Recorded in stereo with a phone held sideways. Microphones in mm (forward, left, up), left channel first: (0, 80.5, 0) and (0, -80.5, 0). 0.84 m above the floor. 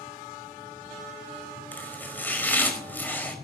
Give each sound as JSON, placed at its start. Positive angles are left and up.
{"t": 1.7, "sound": "chopping", "side_deg": 10, "distance_m": 5.0}